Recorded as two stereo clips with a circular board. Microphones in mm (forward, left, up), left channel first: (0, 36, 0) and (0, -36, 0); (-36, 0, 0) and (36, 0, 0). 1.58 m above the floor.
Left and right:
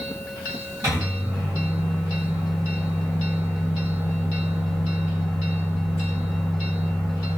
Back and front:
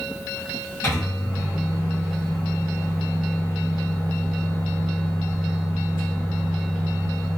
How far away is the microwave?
About 1.4 m.